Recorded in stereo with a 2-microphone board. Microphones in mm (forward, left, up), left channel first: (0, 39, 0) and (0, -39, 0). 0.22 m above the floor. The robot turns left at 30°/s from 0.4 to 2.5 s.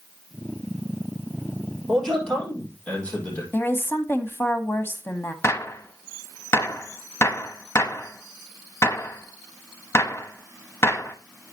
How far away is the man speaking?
About 6 m.